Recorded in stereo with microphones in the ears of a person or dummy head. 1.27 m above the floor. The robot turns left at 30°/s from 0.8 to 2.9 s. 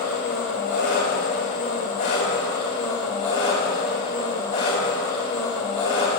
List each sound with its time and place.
0.0 s an engine running: 95° left, 1.3 m; by 6.2 s 35° left, 1.3 m